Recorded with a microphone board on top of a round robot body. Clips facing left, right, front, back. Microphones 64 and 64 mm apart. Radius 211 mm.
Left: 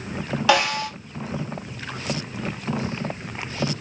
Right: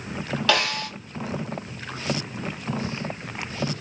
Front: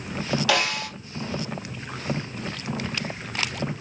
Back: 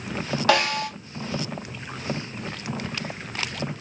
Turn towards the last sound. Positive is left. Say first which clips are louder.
# left 4 dB, back 5 dB
turn(degrees=160)